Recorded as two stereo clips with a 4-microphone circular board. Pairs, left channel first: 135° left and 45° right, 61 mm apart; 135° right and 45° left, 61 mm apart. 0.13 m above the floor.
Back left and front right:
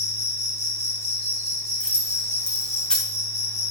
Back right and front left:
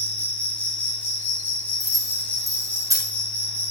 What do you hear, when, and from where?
0.0 s an insect: 160° left, 5.5 m
1.8 s keys jangling: 60° left, 4 m